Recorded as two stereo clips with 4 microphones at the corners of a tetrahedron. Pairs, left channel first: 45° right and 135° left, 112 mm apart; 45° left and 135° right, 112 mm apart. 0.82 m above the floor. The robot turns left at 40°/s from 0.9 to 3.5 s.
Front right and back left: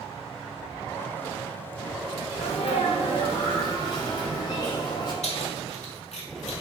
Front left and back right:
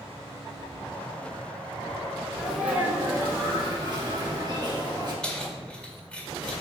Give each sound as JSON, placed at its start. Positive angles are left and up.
{"t": 2.4, "sound": "a sneeze", "azimuth_deg": -45, "distance_m": 2.5}
{"t": 5.2, "sound": "keys jangling", "azimuth_deg": -35, "distance_m": 1.7}